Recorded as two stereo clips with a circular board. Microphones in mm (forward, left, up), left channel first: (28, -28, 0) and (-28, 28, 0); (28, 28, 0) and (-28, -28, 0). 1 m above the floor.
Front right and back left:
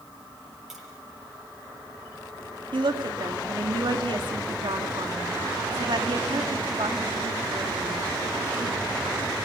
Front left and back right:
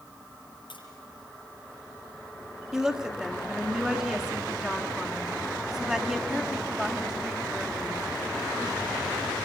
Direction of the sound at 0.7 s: 50° left.